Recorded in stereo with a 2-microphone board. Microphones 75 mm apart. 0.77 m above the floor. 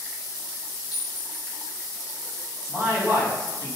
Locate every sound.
0.9 s a clink: 65° left (ahead or behind), 0.8 m
2.7 s a man speaking: 35° left (ahead or behind), 1.0 m